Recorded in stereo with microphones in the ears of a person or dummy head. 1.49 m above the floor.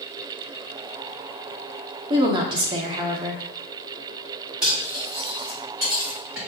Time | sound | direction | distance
2.1 | a woman speaking | 25° right (ahead or behind) | 0.6 m
4.6 | cutlery clinking | 5° right (ahead or behind) | 1.9 m